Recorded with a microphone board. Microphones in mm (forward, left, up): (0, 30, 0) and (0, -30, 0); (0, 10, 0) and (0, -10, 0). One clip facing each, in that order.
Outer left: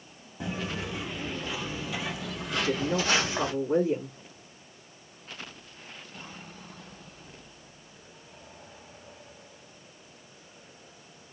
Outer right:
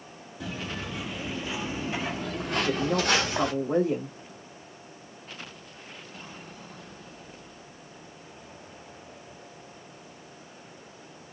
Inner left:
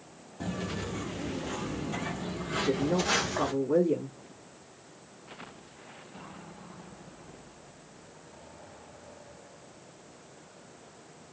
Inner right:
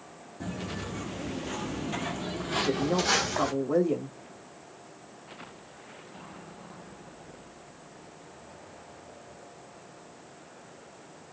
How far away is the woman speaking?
About 1.4 m.